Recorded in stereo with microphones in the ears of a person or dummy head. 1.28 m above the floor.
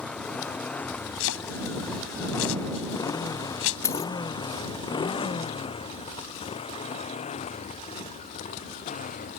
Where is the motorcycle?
5° left (ahead or behind); by 9.4 s 35° left (ahead or behind).